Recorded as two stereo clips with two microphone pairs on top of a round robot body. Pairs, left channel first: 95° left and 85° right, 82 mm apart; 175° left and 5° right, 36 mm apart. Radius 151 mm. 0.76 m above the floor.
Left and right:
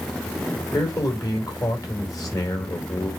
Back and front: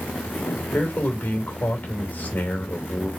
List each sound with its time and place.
0.7 s a man speaking: 135° left, 4 m